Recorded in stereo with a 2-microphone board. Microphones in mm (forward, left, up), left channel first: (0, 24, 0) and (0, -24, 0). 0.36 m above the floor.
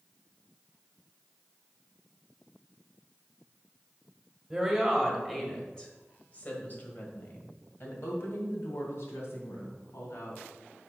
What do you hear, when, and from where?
4.5 s a woman speaking: 5° right (ahead or behind), 1.5 m; by 10.4 s 70° left (ahead or behind), 3 m